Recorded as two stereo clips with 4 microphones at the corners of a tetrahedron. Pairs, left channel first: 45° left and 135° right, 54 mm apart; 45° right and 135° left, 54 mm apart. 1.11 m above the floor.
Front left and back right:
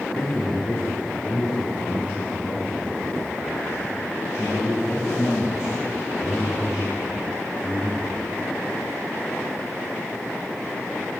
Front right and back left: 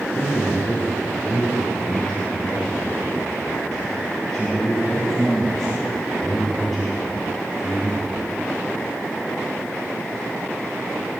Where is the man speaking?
5° left, 3 m; by 8.2 s 45° left, 6.5 m.